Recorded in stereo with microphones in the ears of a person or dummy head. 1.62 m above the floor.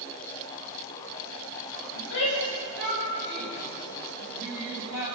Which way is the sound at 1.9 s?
70° left (ahead or behind).